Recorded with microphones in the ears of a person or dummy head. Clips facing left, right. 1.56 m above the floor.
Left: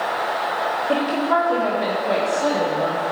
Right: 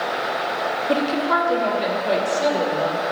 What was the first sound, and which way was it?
A woman speaking, 45° right (ahead or behind).